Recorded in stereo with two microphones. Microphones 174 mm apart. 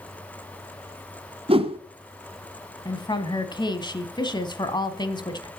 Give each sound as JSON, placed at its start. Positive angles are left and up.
{"t": 1.5, "sound": "a whoosh", "side_deg": -35, "distance_m": 1.1}
{"t": 2.9, "sound": "a woman speaking", "side_deg": 25, "distance_m": 1.1}